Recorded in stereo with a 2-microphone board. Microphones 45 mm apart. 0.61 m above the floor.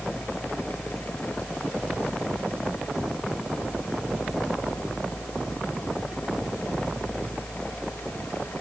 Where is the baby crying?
I don't hear a baby crying.